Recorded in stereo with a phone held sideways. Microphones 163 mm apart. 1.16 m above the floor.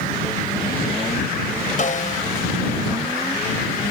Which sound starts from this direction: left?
A snare drum, at 1.8 s.